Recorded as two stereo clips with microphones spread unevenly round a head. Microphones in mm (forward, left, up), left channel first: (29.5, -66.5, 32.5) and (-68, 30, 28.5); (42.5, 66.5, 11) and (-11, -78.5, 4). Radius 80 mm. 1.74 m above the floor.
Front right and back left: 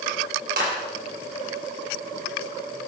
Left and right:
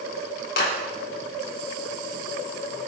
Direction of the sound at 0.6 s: 105° left.